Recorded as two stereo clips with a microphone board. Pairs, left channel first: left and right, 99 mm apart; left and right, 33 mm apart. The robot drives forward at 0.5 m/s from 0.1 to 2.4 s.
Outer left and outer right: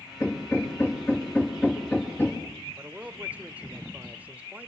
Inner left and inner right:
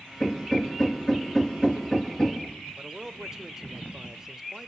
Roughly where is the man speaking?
Centre.